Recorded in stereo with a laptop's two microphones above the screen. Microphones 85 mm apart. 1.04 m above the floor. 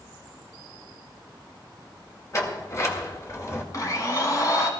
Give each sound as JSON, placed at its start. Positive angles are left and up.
{"t": 2.3, "sound": "a sliding door", "side_deg": 35, "distance_m": 2.0}
{"t": 3.7, "sound": "a blender", "side_deg": 45, "distance_m": 2.0}